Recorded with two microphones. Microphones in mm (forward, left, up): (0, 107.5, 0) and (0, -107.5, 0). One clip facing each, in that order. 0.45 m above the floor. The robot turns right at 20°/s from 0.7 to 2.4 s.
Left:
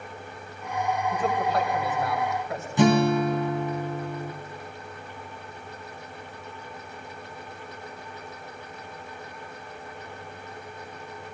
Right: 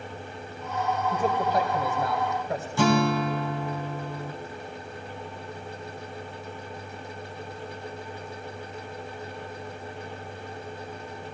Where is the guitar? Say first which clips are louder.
Left 3 dB; 20° left (ahead or behind), 1.4 m.